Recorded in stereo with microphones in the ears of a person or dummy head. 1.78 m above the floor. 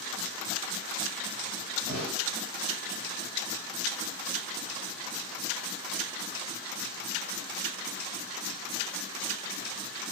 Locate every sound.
1.9 s a snare drum: 25° right (ahead or behind), 1.2 m